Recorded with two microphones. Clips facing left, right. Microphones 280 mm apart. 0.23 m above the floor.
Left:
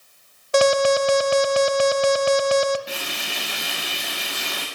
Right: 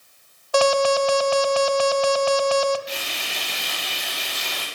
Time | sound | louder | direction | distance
0.5 | an alarm | left 1 dB | 25° left (ahead or behind) | 0.8 m
2.9 | frying | left 1 dB | 60° left (ahead or behind) | 6.5 m